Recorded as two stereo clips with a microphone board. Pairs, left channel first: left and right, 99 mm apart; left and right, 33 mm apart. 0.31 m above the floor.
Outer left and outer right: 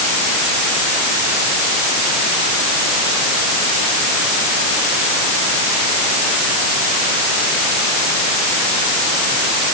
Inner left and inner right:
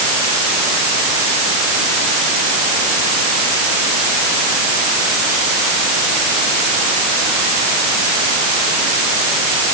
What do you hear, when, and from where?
Only background noise.